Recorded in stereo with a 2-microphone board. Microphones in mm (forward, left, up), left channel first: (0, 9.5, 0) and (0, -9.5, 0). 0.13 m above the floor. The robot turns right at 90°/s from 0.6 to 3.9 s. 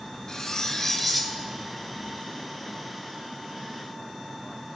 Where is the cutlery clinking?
140° left, 1.2 m; by 1.3 s 150° right, 1.2 m.